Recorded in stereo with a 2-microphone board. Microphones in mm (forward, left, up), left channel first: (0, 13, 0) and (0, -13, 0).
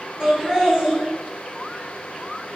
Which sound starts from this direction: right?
Laughter, at 0.2 s.